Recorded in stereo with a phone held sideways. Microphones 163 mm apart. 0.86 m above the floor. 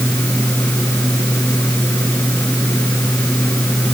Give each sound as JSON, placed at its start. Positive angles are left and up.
{"t": 0.0, "sound": "a fan", "side_deg": 10}